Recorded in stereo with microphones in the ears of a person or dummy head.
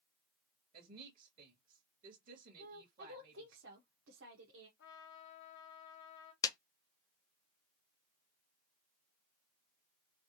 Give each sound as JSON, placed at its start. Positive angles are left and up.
{"t": 0.7, "sound": "a woman speaking", "side_deg": -50, "distance_m": 1.6}
{"t": 2.6, "sound": "a woman speaking", "side_deg": -75, "distance_m": 1.0}
{"t": 4.8, "sound": "a trumpet", "side_deg": 65, "distance_m": 1.1}
{"t": 6.4, "sound": "a clap", "side_deg": 20, "distance_m": 0.6}